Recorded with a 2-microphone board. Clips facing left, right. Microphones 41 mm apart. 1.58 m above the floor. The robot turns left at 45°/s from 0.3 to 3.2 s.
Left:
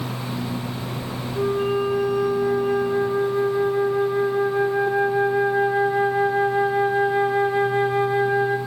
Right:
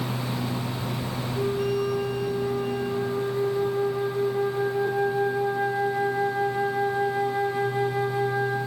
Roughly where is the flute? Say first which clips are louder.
Left 4 dB; behind left.